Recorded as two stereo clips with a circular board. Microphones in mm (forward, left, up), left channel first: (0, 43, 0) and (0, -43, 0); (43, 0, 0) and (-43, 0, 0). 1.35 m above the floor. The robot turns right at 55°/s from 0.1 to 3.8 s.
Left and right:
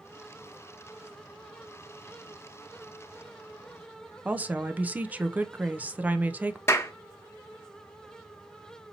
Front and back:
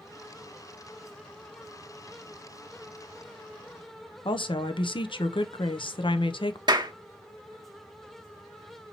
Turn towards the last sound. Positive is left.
turn(degrees=150)